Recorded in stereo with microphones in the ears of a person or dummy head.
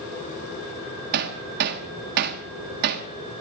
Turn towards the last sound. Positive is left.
turn(degrees=-55)  # may be behind; listen again after turning